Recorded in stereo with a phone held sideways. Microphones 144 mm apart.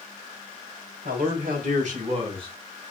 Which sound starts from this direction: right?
A man speaking, at 1.1 s.